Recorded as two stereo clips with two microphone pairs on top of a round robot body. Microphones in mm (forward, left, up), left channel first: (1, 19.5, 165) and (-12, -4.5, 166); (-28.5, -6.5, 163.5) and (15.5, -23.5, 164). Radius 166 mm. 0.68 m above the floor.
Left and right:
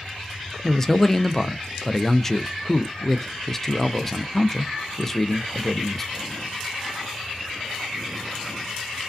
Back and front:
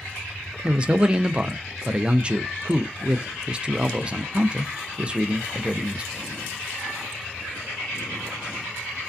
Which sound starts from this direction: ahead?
A man speaking, at 0.6 s.